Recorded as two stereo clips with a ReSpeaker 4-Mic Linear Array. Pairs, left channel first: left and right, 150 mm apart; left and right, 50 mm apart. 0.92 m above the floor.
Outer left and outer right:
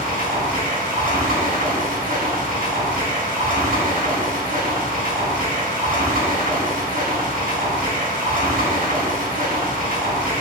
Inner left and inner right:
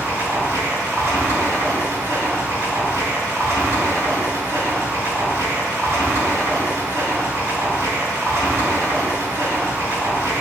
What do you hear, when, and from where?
0.0 s running water: 75° right (ahead or behind), 3.5 m